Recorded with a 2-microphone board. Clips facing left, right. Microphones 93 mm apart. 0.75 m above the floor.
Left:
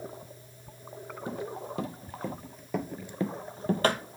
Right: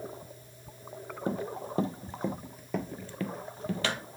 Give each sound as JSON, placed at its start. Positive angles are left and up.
{"t": 1.3, "sound": "running footsteps", "side_deg": -45, "distance_m": 1.2}